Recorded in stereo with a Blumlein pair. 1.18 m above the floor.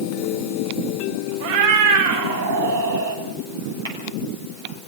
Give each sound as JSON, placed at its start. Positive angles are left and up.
{"t": 1.4, "sound": "a cat meowing", "azimuth_deg": -55, "distance_m": 4.0}
{"t": 3.9, "sound": "tapping", "azimuth_deg": -70, "distance_m": 8.5}